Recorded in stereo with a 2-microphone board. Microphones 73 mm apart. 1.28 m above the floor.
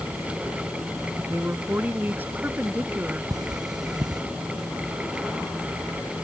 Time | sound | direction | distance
1.2 | a woman speaking | 25° right (ahead or behind) | ?
3.3 | cutlery clinking | 60° right (ahead or behind) | ?